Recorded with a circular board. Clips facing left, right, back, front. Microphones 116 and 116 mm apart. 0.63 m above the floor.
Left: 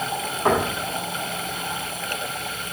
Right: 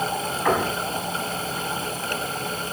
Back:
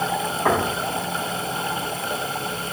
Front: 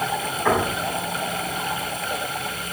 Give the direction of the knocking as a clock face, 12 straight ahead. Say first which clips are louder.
Left 2 dB, even; 7 o'clock.